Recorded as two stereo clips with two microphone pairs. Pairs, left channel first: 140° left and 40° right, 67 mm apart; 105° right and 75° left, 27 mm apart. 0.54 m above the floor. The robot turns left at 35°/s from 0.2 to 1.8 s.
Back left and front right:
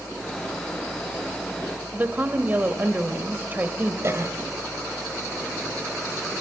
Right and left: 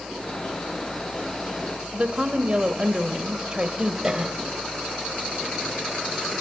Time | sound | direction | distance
1.9 | a woman speaking | 20° left | 2 m
4.0 | a cough | 5° left | 2.5 m